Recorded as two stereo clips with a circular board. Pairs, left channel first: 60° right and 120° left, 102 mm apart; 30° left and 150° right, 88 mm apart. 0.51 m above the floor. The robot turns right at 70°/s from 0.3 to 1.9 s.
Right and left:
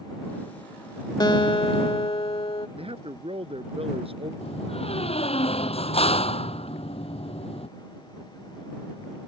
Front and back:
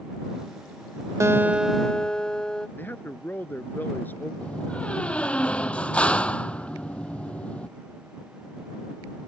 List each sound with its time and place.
1.2 s a guitar: 100° right; by 2.7 s 50° right
2.8 s a man speaking: 100° left
4.4 s a door slam: 45° right